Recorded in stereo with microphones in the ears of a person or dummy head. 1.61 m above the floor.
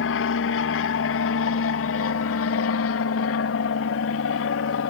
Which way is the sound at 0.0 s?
60° left (ahead or behind).